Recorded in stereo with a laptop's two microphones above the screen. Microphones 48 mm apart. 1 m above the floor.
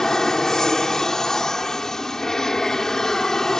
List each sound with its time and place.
0.0 s an aircraft: 10° left (ahead or behind)